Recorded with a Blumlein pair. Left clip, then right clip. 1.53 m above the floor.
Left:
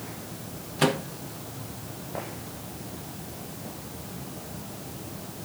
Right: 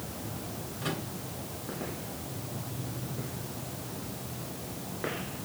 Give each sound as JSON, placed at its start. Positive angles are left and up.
{"t": 0.8, "sound": "a microwave", "azimuth_deg": 50, "distance_m": 1.7}